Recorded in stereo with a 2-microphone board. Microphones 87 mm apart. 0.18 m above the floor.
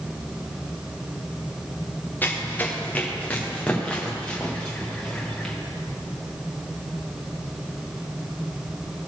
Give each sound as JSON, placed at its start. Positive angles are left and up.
{"t": 2.2, "sound": "running footsteps", "side_deg": 20, "distance_m": 2.0}